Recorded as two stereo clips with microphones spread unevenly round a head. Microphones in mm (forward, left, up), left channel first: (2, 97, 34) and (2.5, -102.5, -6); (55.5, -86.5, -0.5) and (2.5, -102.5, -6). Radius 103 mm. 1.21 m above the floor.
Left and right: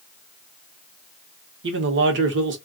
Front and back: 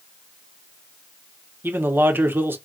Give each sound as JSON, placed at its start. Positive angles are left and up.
{"t": 1.6, "sound": "a man speaking", "azimuth_deg": -115, "distance_m": 1.1}